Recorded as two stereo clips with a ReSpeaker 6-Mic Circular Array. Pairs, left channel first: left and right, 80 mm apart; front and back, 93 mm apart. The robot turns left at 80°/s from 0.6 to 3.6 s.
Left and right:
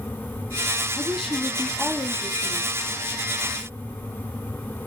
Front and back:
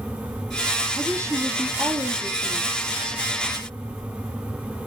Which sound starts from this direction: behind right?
A woman speaking, at 0.9 s.